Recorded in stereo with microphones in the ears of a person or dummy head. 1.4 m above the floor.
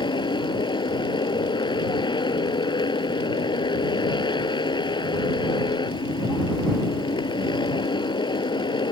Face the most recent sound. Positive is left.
turn(degrees=20)  # may be behind; listen again after turning